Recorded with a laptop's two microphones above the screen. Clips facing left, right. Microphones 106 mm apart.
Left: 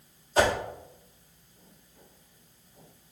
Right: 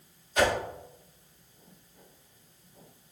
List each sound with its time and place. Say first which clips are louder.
0.4 s a whoosh: left 2 dB; 30° left (ahead or behind), 0.6 m